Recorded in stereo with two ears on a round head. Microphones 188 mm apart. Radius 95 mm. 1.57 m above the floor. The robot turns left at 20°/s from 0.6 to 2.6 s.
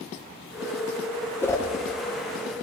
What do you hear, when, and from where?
1.4 s a whoosh: 10° left (ahead or behind), 0.7 m; by 1.7 s 15° left (ahead or behind), 0.7 m